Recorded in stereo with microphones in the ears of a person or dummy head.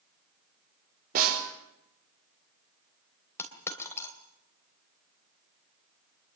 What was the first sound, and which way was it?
A snare drum, 50° right (ahead or behind).